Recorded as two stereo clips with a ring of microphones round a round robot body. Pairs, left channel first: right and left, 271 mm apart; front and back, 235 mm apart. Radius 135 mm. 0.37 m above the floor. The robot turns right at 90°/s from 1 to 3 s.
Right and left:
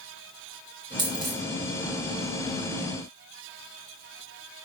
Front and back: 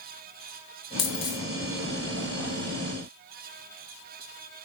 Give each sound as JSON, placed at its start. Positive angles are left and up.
{"t": 1.0, "sound": "a dropped coin", "azimuth_deg": 15, "distance_m": 3.0}